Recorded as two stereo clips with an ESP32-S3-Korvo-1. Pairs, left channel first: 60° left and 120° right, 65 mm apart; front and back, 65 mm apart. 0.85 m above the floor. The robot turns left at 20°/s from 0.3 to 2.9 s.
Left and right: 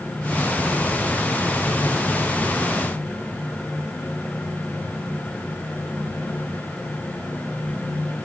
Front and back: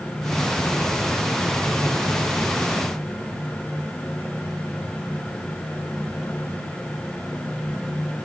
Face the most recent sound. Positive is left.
No sound to turn to.